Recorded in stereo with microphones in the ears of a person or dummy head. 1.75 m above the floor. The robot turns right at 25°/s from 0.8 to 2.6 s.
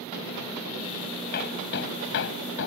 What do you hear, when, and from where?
1.3 s hammering: 55° left (ahead or behind); by 2.7 s 70° left (ahead or behind)